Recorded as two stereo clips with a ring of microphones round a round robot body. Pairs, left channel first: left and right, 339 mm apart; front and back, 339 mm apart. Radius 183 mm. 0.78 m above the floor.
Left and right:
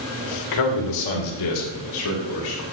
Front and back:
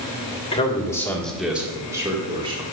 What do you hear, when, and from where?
0.5 s a man speaking: 70° left, 1.6 m; by 2.6 s 105° left, 2.5 m